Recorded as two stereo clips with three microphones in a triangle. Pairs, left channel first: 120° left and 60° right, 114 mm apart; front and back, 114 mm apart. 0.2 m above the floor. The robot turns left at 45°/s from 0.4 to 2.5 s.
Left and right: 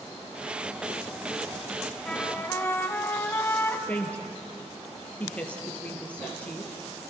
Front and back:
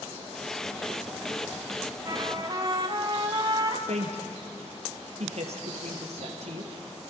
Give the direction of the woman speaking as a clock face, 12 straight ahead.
5 o'clock.